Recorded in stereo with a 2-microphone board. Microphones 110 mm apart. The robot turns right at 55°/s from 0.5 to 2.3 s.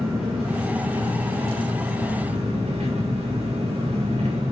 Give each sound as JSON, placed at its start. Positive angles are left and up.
{"t": 0.0, "sound": "an engine running", "azimuth_deg": -175, "distance_m": 5.5}